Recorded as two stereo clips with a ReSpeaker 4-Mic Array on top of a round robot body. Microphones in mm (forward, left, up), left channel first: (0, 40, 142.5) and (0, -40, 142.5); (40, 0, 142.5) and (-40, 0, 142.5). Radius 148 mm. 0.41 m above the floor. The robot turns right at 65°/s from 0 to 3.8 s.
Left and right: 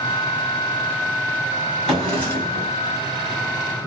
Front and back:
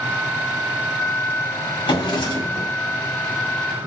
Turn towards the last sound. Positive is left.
turn(degrees=125)